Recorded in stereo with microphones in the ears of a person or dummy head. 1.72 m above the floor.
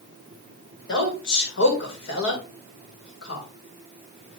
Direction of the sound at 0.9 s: 65° left (ahead or behind).